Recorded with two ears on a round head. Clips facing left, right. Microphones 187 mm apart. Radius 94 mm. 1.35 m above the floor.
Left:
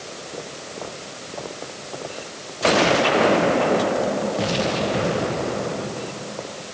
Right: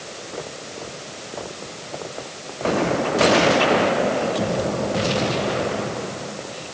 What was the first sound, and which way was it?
Only background noise.